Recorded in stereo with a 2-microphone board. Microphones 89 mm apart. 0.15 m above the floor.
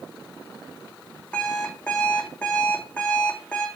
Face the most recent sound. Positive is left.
turn(degrees=15)  # may be behind; listen again after turning